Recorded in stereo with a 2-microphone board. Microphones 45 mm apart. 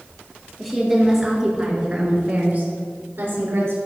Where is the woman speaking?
Centre (ahead or behind), 3.5 m; by 3.8 s 65° right (ahead or behind), 3 m.